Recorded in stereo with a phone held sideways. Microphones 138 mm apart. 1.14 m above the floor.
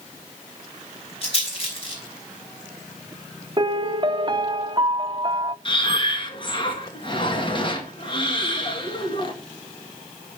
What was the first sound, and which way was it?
A rattle, 40° left (ahead or behind).